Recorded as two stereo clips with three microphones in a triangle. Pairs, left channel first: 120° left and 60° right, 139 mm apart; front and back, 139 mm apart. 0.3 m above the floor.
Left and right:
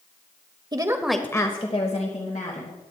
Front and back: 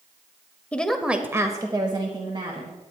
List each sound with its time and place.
0.7 s a woman speaking: 70° right, 1.0 m; by 2.8 s 125° left, 2.5 m